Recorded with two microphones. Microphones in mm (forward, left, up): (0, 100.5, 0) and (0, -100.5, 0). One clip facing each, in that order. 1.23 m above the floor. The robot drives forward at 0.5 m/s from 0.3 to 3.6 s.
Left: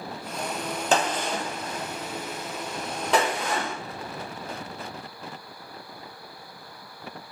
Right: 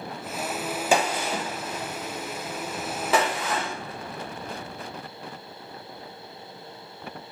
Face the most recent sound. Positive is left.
turn(degrees=-5)  # may be behind; listen again after turning